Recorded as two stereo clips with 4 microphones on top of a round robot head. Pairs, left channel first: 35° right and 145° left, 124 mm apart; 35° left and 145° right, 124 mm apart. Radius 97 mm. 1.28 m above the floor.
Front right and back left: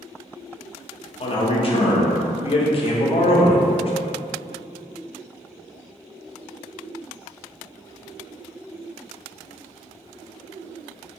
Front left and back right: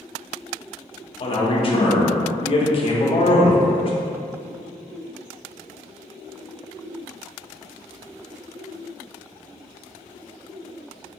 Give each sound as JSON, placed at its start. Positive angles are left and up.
{"t": 1.2, "sound": "a man speaking", "azimuth_deg": -5, "distance_m": 0.6}